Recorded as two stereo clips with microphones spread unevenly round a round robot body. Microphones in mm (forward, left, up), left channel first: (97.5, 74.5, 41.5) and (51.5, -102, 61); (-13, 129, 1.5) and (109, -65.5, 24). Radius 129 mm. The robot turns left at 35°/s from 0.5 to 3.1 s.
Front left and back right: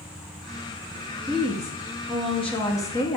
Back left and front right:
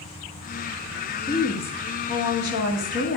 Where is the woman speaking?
165° right, 1.8 m; by 3.2 s 130° left, 1.8 m.